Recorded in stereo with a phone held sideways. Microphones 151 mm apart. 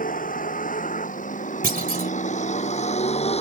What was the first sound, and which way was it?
A vehicle, 70° left (ahead or behind).